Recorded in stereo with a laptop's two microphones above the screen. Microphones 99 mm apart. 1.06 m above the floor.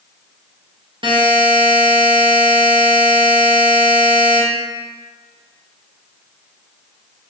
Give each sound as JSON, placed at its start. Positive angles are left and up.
{"t": 1.0, "sound": "a buzzer", "side_deg": -55, "distance_m": 0.5}